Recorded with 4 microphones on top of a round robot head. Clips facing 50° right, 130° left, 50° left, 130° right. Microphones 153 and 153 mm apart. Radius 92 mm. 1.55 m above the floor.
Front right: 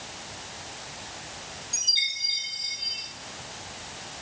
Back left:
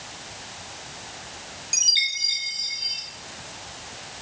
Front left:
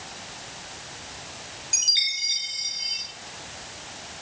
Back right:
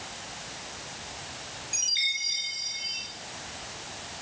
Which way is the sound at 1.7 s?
100° left.